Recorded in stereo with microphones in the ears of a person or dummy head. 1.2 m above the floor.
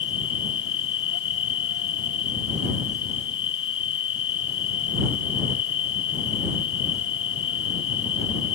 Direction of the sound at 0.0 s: 75° left (ahead or behind).